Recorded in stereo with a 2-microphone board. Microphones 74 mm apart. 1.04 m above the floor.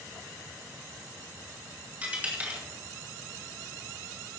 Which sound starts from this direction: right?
A dropped coin, at 2.0 s.